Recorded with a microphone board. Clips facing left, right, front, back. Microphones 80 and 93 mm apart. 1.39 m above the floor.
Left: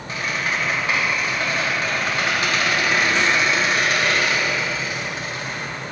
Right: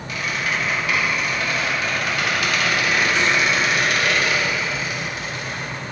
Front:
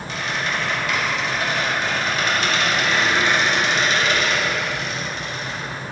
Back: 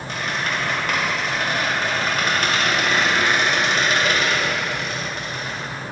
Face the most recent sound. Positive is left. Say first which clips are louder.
# even, even
turn(degrees=145)